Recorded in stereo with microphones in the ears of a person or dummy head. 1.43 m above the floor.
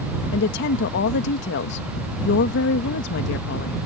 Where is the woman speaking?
55° left (ahead or behind).